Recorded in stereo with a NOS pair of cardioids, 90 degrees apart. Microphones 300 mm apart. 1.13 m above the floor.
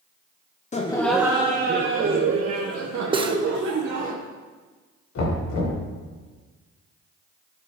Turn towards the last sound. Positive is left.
turn(degrees=65)